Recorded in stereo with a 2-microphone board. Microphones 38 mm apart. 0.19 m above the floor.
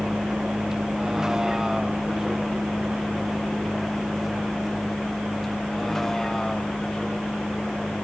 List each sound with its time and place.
0.0 s a vehicle: 25° right (ahead or behind); by 8.1 s 15° left (ahead or behind)